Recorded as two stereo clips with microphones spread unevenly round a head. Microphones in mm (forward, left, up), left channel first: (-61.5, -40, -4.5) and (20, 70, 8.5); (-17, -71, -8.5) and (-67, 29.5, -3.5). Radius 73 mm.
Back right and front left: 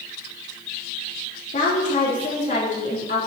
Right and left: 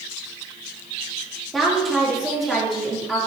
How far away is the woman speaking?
About 3.5 m.